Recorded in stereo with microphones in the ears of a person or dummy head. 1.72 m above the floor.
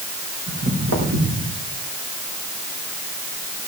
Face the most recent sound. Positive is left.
turn(degrees=-75)  # may be behind; listen again after turning